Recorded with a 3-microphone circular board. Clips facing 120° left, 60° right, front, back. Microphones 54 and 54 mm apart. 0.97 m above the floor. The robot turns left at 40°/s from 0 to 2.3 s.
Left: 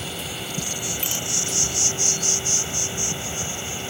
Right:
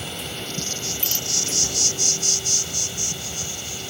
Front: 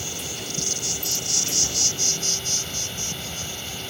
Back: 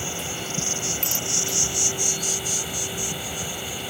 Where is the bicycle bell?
165° right; by 1.3 s 175° right.